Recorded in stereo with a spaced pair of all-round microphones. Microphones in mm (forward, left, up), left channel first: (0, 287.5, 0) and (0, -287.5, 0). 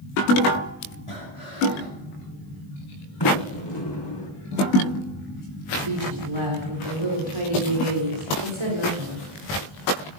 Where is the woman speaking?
55° right (ahead or behind), 4 m.